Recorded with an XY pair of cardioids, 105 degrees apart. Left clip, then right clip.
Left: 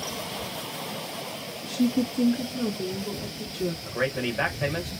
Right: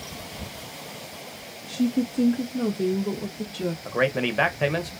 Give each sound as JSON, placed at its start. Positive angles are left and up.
{"t": 1.7, "sound": "a woman speaking", "azimuth_deg": 20, "distance_m": 0.5}
{"t": 3.9, "sound": "a man speaking", "azimuth_deg": -40, "distance_m": 0.9}